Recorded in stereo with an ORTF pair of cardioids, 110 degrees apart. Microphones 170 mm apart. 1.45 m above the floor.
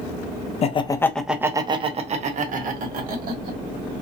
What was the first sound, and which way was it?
Laughter, 40° left.